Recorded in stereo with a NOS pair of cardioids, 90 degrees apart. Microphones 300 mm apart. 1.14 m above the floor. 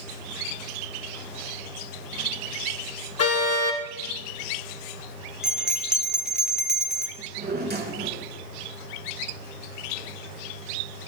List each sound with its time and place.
3.2 s a car horn: 50° left, 2.5 m
5.4 s a bell: straight ahead, 2 m
7.2 s a drawer: 30° right, 3 m